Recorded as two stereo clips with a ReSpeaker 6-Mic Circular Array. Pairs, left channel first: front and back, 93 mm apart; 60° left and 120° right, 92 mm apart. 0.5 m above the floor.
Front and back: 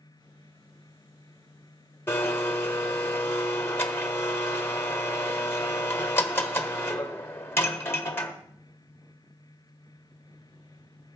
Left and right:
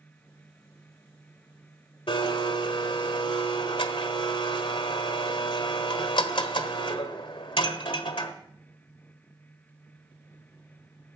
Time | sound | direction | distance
2.1 | a blender | 65° left | 1.2 m